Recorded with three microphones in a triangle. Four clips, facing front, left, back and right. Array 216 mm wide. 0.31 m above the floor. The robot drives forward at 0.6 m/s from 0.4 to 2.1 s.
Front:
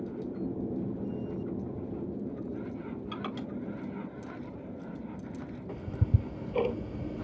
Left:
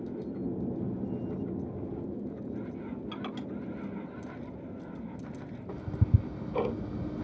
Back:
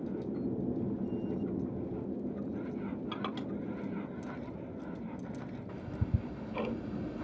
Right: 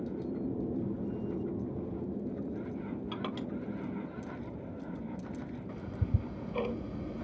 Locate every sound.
3.1 s crushing: 125° right, 3.5 m
5.7 s ticking: 65° left, 0.6 m